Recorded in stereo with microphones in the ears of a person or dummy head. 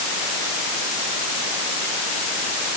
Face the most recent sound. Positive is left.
No sound to turn to.